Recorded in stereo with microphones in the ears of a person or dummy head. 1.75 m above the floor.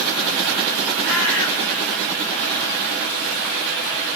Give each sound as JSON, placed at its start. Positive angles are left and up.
{"t": 1.0, "sound": "a bird", "side_deg": -20, "distance_m": 2.0}